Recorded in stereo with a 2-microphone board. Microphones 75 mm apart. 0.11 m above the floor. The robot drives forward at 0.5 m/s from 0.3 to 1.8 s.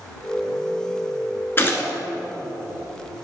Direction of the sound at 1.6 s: 35° left (ahead or behind).